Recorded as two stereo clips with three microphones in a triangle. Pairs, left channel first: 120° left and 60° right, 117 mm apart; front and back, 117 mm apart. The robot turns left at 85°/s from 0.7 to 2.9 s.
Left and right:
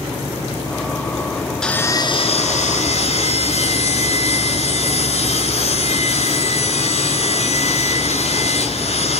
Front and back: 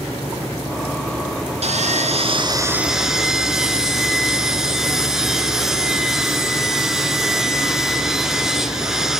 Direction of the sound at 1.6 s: 155° right.